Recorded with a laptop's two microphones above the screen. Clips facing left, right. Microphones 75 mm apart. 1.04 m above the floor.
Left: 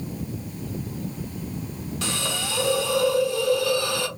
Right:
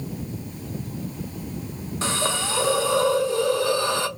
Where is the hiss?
30° right (ahead or behind), 0.6 m.